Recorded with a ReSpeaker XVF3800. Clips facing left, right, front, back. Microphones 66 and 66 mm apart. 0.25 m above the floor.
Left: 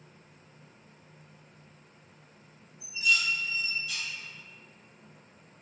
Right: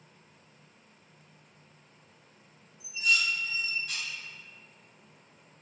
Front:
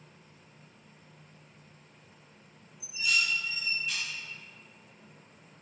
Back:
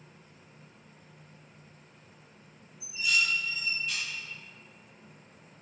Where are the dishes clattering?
85° right, 1.1 m.